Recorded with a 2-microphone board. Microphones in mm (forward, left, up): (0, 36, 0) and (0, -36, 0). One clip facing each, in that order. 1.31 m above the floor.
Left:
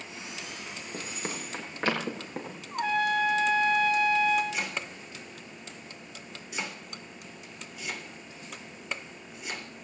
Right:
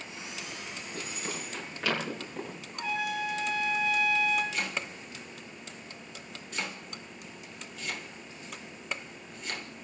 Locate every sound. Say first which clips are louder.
0.9 s running footsteps: left 2 dB; 35° left (ahead or behind), 6.5 m; by 2.6 s 40° left (ahead or behind), 8.5 m
2.7 s a trumpet: left 7 dB; 60° left (ahead or behind), 2.5 m
4.5 s chopping: even; 10° left (ahead or behind), 3.5 m